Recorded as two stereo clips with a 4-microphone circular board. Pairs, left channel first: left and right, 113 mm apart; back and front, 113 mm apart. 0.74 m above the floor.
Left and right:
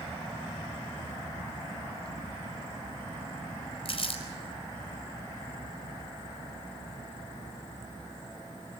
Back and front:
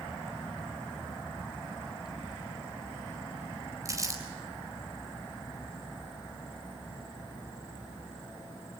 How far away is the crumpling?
About 4.5 m.